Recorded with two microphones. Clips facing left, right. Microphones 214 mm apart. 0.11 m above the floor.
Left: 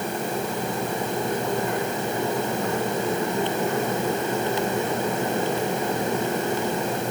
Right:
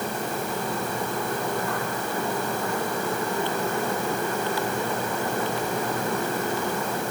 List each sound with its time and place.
Only background noise.